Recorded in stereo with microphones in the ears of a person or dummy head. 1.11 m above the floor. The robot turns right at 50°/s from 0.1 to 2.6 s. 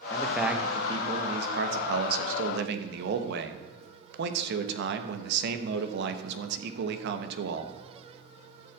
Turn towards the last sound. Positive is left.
turn(degrees=-60)